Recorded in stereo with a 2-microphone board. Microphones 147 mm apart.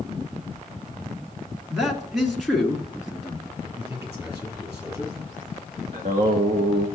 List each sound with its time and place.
1.7 s a man speaking: centre (ahead or behind), 1.5 m
3.6 s a man speaking: 20° right (ahead or behind), 5 m
5.9 s singing: 65° right (ahead or behind), 1.7 m